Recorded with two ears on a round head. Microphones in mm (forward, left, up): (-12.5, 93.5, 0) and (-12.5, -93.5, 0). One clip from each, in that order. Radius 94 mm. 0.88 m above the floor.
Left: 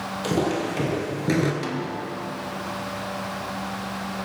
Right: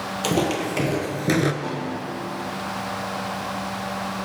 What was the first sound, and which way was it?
Footsteps, 35° right (ahead or behind).